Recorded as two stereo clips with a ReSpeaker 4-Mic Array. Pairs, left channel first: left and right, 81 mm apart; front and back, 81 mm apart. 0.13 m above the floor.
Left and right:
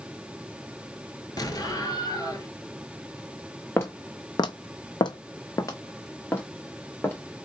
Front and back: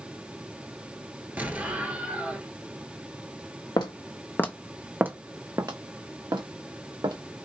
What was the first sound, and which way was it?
An explosion, 115° left.